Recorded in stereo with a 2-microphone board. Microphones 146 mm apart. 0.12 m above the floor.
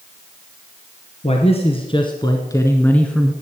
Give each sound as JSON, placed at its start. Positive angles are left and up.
{"t": 1.2, "sound": "a man speaking", "side_deg": 45, "distance_m": 1.6}